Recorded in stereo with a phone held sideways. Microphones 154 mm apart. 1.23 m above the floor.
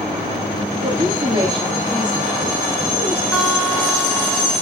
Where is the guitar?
10° right (ahead or behind), 3 m.